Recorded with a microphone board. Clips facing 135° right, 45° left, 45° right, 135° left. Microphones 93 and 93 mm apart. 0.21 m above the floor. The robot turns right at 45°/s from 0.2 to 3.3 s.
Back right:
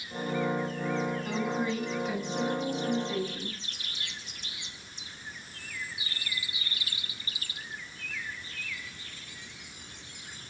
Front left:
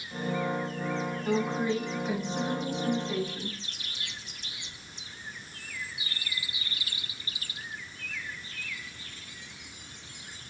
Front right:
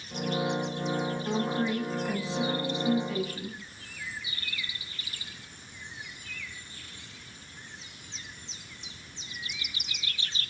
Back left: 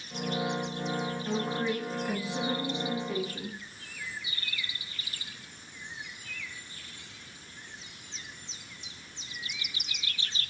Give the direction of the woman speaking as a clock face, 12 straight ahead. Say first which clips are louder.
Front left 3 dB, front right 1 dB; 11 o'clock.